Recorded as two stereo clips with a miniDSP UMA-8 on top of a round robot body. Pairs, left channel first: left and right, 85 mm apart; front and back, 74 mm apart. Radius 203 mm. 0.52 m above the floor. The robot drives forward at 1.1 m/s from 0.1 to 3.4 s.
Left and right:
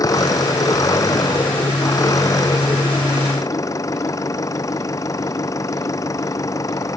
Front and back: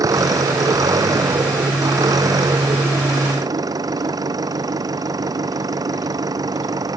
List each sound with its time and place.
0.0 s an engine running: 140° left; by 7.0 s 145° left